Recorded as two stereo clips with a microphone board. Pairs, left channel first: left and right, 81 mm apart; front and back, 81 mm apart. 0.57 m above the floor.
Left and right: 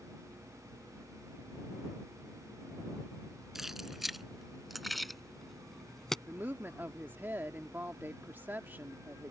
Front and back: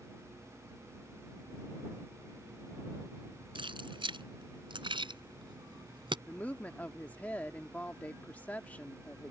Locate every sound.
3.5 s keys jangling: 175° right; by 6.2 s 175° left
6.3 s a woman speaking: 50° right